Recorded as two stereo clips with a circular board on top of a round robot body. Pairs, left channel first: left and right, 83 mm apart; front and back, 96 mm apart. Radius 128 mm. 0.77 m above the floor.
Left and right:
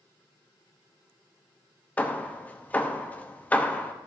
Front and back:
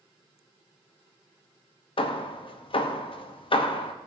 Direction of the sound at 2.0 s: 20° left.